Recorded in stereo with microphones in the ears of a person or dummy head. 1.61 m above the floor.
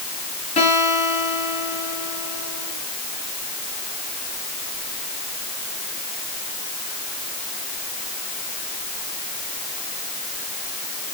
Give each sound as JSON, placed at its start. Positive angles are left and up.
{"t": 0.6, "sound": "a guitar", "side_deg": 30, "distance_m": 4.5}